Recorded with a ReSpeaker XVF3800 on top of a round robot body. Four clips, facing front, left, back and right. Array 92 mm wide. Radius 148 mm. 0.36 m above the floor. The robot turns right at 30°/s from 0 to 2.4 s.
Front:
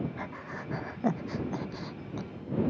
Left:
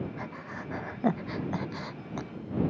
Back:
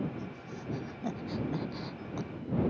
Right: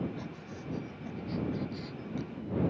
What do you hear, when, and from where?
0.2 s breathing: 35° left; by 2.3 s 100° left